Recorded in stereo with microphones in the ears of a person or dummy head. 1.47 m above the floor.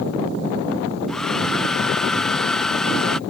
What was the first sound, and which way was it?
A hair dryer, 5° left (ahead or behind).